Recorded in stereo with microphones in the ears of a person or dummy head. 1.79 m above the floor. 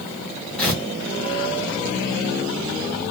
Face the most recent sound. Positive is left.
turn(degrees=5)  # may be behind; listen again after turning